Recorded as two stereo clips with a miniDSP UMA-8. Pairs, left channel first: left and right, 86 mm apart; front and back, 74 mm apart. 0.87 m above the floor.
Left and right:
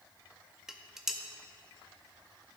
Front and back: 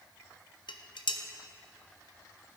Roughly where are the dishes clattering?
Ahead.